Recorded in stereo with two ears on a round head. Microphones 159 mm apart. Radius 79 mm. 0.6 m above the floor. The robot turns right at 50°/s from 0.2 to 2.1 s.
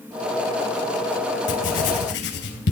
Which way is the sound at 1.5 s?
70° left (ahead or behind).